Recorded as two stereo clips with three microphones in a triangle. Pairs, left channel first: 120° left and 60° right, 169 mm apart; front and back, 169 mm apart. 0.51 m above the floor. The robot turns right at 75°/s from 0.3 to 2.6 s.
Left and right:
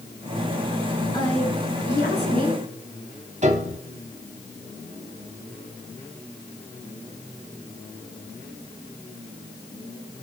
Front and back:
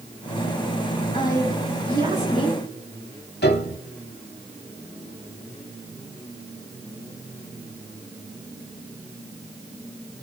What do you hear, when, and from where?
1.1 s a woman speaking: 55° left, 5.5 m; by 2.6 s 165° left, 5.5 m
3.4 s a piano: 10° right, 1.1 m